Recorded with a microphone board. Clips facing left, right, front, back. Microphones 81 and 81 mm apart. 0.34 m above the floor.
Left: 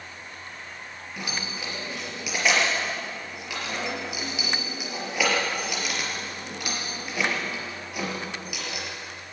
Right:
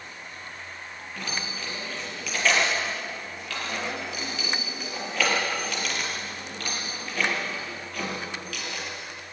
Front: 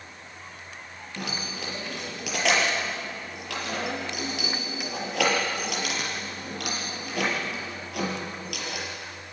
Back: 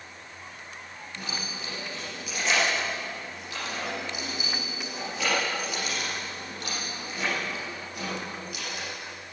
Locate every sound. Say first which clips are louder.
1.2 s keys jangling: even, front 3 dB; 15° left, 5.5 m